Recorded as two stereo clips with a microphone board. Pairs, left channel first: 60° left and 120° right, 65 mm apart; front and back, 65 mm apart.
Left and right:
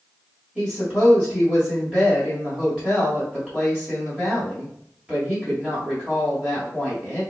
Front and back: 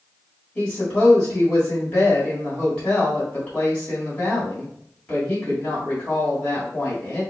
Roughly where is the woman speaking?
Ahead right.